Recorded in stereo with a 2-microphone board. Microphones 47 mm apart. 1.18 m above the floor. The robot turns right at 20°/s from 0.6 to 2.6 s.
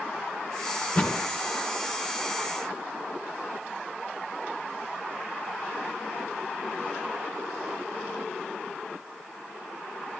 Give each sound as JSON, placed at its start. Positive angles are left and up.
{"t": 0.8, "sound": "a thud", "side_deg": 30, "distance_m": 2.5}